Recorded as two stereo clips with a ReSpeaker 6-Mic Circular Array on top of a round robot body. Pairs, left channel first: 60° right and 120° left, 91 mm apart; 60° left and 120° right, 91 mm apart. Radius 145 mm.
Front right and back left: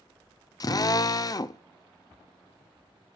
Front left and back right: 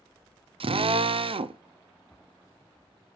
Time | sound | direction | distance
0.6 | a drill | 105° right | 0.6 m